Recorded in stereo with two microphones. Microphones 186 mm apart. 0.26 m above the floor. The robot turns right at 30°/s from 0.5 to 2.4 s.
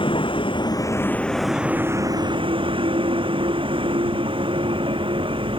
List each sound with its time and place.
0.0 s a vehicle: 150° left; by 5.6 s 150° right